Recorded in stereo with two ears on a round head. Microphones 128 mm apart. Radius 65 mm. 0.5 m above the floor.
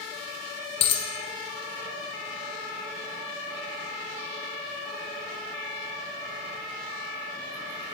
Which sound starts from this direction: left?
A dropped coin, at 0.8 s.